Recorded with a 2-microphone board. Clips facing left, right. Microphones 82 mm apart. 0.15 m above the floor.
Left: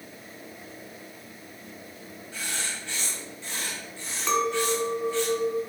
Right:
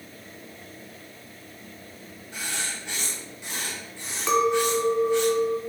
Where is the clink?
5° right (ahead or behind), 1.0 m.